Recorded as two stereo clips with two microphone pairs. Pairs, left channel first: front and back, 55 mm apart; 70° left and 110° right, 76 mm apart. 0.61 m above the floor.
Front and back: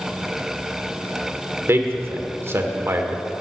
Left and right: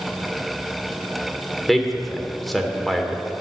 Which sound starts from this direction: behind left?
A man speaking, at 1.7 s.